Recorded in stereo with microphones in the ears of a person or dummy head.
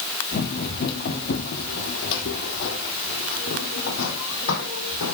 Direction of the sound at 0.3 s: 50° left (ahead or behind).